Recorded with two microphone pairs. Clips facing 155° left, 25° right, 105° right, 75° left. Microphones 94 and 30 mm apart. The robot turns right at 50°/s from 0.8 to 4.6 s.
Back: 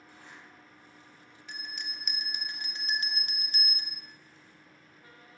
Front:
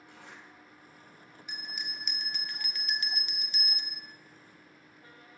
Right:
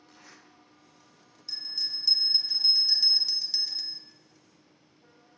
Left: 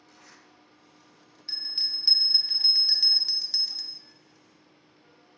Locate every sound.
0.1 s a zipper: 40° right, 2 m
1.5 s a bell: 40° left, 1.1 m; by 4.0 s 165° left, 1.1 m